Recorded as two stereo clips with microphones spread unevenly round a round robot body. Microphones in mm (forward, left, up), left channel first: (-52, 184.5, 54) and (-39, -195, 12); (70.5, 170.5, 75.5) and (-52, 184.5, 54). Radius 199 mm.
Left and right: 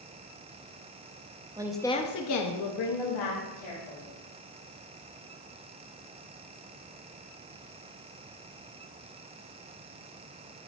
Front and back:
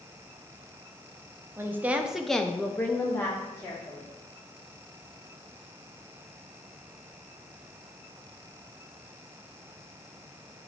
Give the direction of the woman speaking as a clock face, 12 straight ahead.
5 o'clock.